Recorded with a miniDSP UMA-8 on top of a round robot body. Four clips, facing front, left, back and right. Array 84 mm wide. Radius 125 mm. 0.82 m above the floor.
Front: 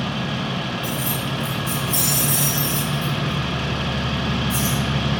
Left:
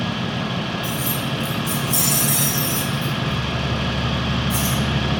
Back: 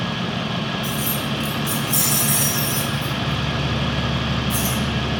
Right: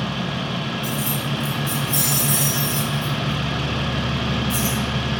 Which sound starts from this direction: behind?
Keys jangling, at 0.8 s.